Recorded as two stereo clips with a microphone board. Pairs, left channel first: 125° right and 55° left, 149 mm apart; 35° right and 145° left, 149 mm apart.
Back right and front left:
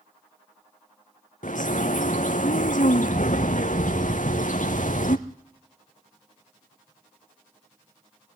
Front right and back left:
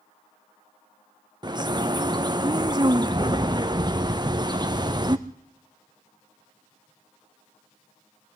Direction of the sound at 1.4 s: 155° right.